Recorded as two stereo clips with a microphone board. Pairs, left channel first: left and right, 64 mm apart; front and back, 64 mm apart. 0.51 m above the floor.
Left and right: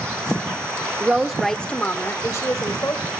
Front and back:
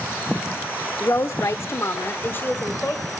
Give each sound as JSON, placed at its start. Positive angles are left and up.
{"t": 1.0, "sound": "a woman speaking", "azimuth_deg": -30, "distance_m": 1.0}